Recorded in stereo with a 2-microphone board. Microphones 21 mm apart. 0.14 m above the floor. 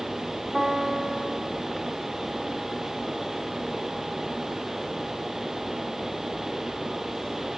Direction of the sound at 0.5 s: 5° left (ahead or behind).